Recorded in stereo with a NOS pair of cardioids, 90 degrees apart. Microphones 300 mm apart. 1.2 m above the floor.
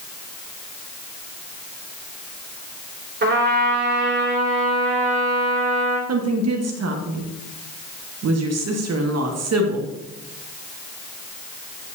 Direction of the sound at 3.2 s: 35° right.